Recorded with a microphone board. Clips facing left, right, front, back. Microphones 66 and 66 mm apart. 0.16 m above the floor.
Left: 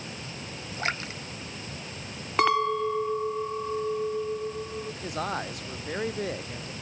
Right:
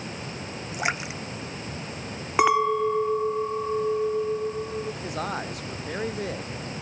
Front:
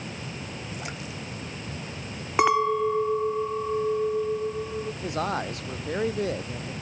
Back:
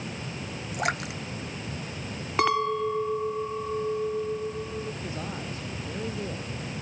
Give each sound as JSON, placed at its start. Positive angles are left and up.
{"t": 0.7, "sound": "a splash", "azimuth_deg": -165}
{"t": 2.4, "sound": "a clink", "azimuth_deg": -40}
{"t": 5.0, "sound": "a man speaking", "azimuth_deg": 0}